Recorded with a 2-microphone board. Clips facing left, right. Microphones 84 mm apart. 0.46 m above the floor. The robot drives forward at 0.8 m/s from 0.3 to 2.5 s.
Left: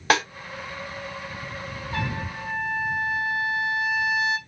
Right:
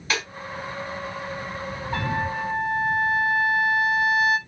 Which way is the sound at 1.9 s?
55° right (ahead or behind).